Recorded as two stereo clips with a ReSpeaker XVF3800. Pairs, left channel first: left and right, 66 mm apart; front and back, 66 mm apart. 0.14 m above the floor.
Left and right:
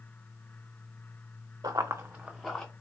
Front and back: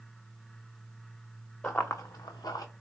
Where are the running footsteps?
70° right, 0.9 m; by 2.6 s 10° left, 1.1 m.